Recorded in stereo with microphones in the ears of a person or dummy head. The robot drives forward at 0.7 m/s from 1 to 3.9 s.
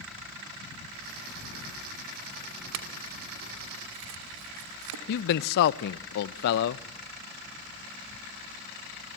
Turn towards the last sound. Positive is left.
turn(degrees=60)  # may be behind; listen again after turning